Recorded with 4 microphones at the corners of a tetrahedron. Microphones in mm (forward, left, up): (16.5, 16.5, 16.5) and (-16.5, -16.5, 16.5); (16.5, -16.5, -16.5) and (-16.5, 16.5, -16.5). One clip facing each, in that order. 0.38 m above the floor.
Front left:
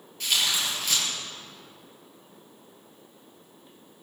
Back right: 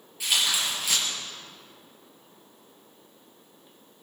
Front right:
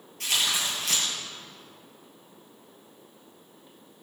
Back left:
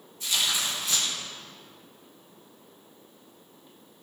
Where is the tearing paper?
55° right, 5 m.